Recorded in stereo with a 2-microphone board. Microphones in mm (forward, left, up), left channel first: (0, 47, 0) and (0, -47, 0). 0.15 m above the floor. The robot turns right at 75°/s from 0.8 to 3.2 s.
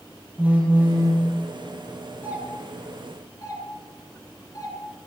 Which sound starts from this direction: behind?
A phone buzzing, at 0.4 s.